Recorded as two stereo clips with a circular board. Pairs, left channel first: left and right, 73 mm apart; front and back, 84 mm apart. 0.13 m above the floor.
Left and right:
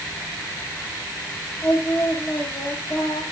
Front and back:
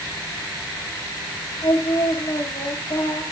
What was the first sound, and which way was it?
Singing, 30° left.